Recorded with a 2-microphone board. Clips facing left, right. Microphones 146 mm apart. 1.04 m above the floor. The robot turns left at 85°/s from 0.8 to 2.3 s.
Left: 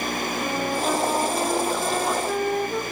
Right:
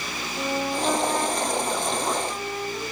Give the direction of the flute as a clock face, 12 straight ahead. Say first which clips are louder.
Right 2 dB; 6 o'clock.